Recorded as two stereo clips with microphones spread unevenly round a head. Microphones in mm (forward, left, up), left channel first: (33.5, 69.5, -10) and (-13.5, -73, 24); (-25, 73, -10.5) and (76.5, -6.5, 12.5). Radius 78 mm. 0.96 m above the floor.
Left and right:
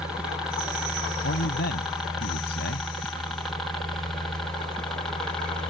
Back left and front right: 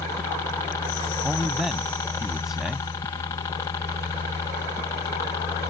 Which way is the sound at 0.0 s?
145° left.